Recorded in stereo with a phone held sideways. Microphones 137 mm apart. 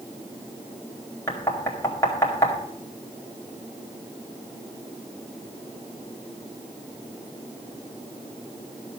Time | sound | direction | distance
1.3 | knocking | 20° left (ahead or behind) | 2 m